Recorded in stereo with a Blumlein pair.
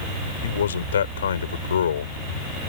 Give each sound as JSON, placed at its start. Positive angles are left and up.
{"t": 0.4, "sound": "a man speaking", "azimuth_deg": 65}